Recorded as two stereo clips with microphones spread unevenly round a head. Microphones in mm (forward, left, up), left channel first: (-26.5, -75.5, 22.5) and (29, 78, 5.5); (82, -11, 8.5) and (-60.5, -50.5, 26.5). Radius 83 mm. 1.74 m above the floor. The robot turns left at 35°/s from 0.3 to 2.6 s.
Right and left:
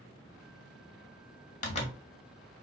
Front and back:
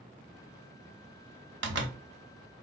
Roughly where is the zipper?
Behind.